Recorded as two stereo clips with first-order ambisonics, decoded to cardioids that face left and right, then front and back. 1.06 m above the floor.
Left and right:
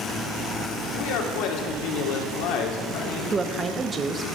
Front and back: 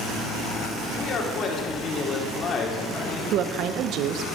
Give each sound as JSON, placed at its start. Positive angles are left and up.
{"t": 0.9, "sound": "a man speaking", "azimuth_deg": 60, "distance_m": 2.5}
{"t": 3.3, "sound": "a woman speaking", "azimuth_deg": -155, "distance_m": 0.7}